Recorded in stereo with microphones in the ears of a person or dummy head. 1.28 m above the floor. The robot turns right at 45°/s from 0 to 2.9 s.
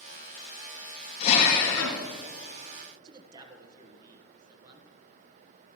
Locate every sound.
1.2 s a drill: 40° left, 3 m; by 2.0 s 80° left, 3 m
3.0 s a man speaking: 25° right (ahead or behind), 1.2 m